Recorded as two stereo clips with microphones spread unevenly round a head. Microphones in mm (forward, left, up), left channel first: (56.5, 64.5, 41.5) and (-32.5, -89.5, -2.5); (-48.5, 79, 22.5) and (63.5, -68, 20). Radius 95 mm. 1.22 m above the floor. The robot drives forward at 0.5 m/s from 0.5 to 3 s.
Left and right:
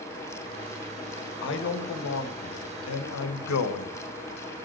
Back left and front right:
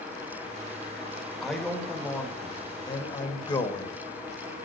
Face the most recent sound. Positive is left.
turn(degrees=60)